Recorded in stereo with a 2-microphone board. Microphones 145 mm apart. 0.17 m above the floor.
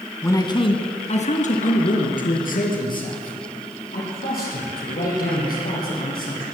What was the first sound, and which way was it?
A man speaking, 20° left (ahead or behind).